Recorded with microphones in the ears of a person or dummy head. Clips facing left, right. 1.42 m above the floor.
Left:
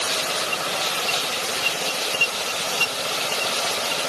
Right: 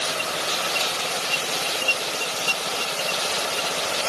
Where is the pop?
I don't hear a pop.